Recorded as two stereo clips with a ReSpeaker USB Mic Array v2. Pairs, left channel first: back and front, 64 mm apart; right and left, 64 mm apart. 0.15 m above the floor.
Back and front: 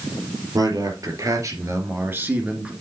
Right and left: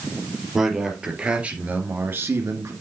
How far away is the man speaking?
About 3.5 m.